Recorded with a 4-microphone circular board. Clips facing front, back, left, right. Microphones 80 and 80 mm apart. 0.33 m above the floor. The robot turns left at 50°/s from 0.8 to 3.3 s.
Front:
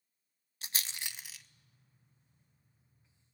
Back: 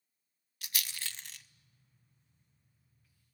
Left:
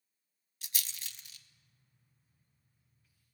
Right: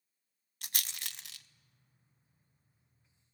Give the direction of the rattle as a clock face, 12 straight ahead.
2 o'clock.